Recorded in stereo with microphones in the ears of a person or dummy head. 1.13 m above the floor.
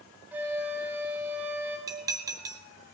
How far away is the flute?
About 4.5 m.